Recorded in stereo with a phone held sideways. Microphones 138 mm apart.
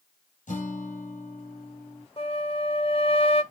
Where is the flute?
45° left (ahead or behind), 1.6 m.